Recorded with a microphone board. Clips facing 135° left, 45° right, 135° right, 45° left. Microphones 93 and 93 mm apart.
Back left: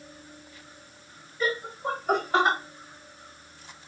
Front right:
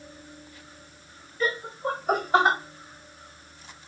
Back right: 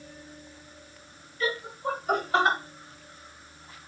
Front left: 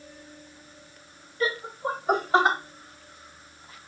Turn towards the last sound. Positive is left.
turn(degrees=0)